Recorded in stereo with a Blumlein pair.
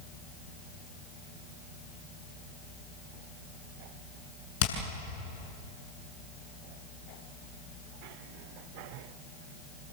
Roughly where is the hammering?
Ahead left.